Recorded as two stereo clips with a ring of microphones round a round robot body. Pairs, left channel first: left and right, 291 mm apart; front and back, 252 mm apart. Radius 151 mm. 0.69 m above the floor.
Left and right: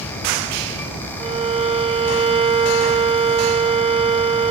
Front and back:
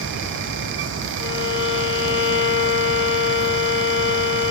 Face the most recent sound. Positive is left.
turn(degrees=-25)